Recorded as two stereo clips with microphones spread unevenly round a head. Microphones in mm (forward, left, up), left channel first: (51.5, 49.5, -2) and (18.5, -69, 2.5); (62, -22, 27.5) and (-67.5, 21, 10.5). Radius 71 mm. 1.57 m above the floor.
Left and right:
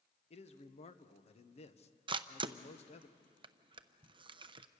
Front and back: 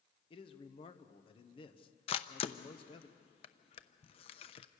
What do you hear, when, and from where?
0.3 s a man speaking: 40° left, 1.3 m
2.1 s a camera shutter: 60° right, 0.8 m